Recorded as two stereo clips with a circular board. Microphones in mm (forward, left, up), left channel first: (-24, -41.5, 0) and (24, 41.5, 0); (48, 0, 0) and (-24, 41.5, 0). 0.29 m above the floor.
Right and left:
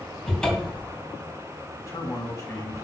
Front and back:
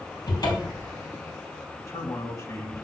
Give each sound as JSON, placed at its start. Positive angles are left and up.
{"t": 0.3, "sound": "a cupboard door", "azimuth_deg": -40, "distance_m": 2.0}
{"t": 1.8, "sound": "a man speaking", "azimuth_deg": -70, "distance_m": 2.0}